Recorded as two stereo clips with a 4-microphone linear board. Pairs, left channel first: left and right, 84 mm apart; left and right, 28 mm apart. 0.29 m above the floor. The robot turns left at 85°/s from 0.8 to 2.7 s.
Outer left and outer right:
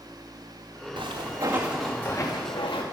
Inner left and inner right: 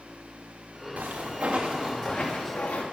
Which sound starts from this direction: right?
Footsteps, at 1.0 s.